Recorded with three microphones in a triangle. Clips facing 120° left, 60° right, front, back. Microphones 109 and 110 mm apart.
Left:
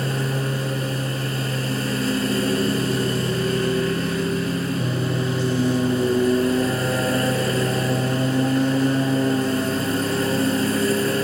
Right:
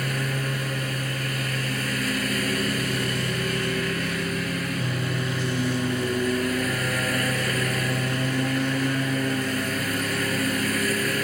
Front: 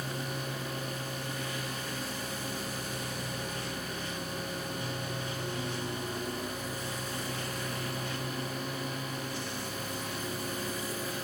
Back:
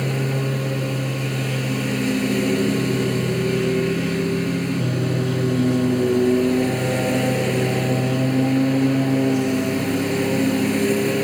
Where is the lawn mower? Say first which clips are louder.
Left 4 dB, back 13 dB; straight behind.